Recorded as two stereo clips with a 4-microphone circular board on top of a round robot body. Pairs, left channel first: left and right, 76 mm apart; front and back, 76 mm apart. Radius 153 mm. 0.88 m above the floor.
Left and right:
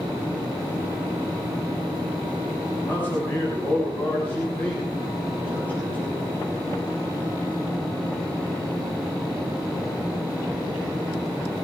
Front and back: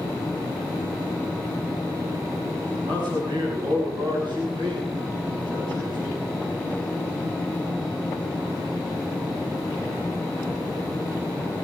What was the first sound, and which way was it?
A man speaking, 155° left.